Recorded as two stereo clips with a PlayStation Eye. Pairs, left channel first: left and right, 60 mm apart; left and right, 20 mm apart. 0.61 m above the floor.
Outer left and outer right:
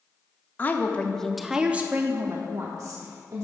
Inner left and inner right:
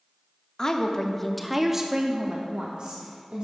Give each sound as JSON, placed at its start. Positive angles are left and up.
{"t": 0.6, "sound": "a woman speaking", "side_deg": 30, "distance_m": 0.8}